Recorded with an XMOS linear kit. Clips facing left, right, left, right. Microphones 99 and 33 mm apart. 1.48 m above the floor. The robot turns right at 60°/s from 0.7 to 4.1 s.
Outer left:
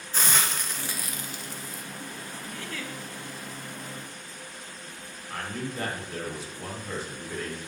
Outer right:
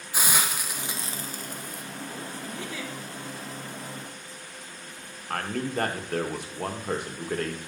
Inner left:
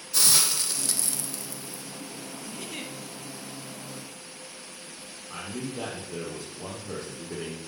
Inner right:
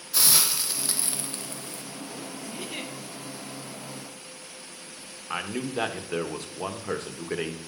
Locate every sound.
0.1 s a hiss: 170° right, 0.6 m; by 1.8 s 100° right, 0.6 m
2.5 s a giggle: 20° right (ahead or behind), 0.8 m; by 2.9 s 10° right (ahead or behind), 0.8 m
5.3 s a man speaking: 55° right (ahead or behind), 0.9 m